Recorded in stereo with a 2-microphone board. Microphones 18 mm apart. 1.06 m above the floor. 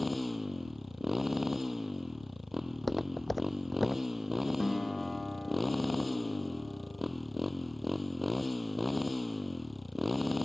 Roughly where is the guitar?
Left.